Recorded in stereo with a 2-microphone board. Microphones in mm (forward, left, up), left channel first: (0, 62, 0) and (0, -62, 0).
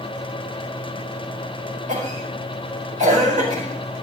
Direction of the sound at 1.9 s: 75° right (ahead or behind).